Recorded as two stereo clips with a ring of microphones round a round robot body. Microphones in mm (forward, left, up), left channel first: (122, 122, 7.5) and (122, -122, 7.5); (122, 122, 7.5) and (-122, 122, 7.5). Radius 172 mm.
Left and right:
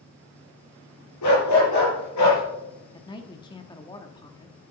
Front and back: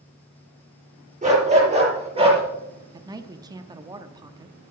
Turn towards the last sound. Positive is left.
turn(degrees=130)